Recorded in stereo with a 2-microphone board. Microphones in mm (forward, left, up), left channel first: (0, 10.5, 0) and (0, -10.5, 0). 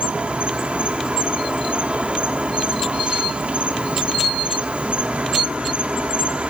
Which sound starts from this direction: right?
An insect, at 0.0 s.